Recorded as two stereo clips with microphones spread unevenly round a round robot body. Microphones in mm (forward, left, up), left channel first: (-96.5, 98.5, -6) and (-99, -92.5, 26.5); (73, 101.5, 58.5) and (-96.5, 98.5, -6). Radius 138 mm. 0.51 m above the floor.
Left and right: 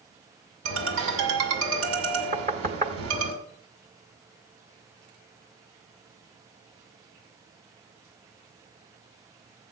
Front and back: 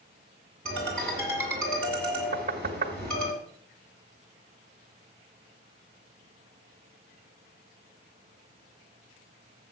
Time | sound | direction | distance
0.7 | a ringtone | 85° right | 2 m
2.3 | knocking | 145° right | 1.2 m